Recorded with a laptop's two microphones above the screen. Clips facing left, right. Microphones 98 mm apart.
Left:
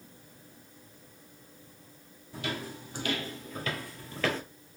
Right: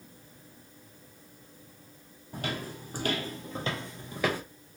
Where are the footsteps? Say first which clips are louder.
Right 1 dB; 50° right (ahead or behind), 1.6 m; by 4.4 s 10° right (ahead or behind), 1.0 m.